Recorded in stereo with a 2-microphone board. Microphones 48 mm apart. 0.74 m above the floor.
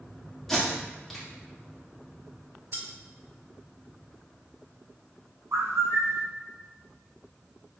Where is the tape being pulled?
5° left (ahead or behind), 1.5 m.